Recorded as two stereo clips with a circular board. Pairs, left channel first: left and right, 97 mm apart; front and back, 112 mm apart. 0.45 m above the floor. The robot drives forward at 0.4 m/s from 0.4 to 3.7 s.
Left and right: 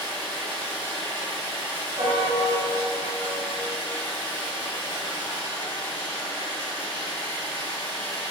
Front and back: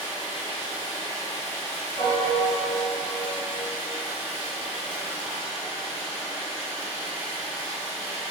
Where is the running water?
20° left, 1.4 m; by 8.3 s 140° left, 1.2 m.